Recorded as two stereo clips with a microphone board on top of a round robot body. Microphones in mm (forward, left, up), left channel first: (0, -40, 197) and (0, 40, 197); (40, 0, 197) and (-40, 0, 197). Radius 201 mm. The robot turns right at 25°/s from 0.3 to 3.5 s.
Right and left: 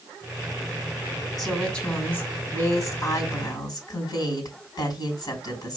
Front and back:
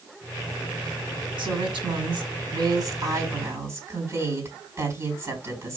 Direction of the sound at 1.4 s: Straight behind.